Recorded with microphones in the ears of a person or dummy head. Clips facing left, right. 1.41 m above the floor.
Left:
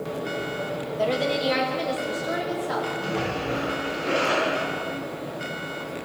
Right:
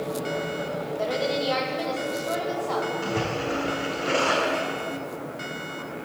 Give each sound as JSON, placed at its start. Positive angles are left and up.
{"t": 1.0, "sound": "a woman speaking", "side_deg": 40, "distance_m": 2.5}
{"t": 3.0, "sound": "a splash", "side_deg": -50, "distance_m": 5.5}